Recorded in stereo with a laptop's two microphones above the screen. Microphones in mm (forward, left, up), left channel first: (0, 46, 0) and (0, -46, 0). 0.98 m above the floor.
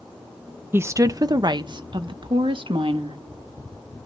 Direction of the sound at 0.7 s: 25° right (ahead or behind).